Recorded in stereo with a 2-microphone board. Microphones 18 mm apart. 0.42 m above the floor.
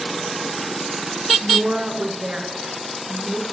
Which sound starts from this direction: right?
A woman speaking, at 1.4 s.